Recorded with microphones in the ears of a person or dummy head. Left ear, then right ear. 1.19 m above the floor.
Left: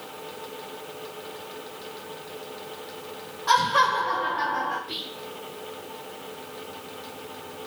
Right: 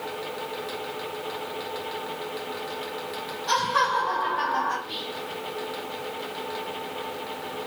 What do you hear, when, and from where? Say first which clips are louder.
3.5 s laughter: left 3 dB; 25° left (ahead or behind), 2.0 m; by 4.8 s 60° right (ahead or behind), 0.8 m
4.9 s whispering: right 1 dB; 30° left (ahead or behind), 1.5 m